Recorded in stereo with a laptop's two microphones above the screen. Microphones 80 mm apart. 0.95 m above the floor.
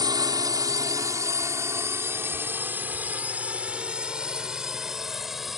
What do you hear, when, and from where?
0.0 s a drone: 55° right (ahead or behind); by 5.6 s centre (ahead or behind)